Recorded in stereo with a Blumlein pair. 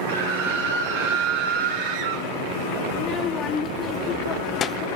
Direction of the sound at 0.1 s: 65° right.